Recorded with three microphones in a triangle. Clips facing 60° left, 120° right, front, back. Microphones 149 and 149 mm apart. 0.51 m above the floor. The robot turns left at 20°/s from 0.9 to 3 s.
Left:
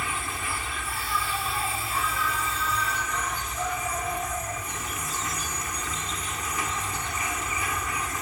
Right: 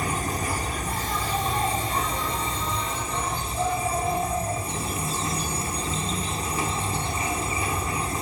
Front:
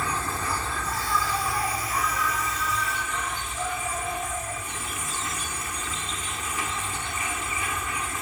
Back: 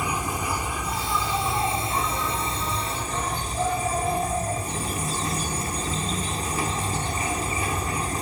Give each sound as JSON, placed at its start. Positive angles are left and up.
{"t": 0.0, "sound": "an insect", "azimuth_deg": -115}